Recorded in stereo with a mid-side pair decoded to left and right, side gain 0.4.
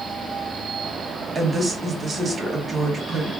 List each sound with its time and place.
1.4 s a woman speaking: 30° right, 1.7 m